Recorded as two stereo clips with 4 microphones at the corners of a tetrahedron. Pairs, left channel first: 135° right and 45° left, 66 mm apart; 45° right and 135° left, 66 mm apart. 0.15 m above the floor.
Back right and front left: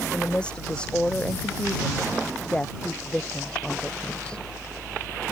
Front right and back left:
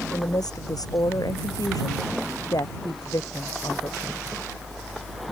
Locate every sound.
0.1 s a woman speaking: 60° right